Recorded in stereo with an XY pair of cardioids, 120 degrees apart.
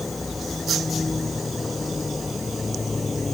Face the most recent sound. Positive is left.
turn(degrees=20)